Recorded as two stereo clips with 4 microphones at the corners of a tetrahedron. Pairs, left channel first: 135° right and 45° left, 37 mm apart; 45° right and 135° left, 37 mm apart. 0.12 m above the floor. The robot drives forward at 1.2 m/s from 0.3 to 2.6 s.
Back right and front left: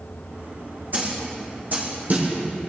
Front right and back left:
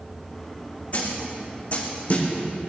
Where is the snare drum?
5° left, 5.5 m; by 2.7 s 10° left, 3.5 m.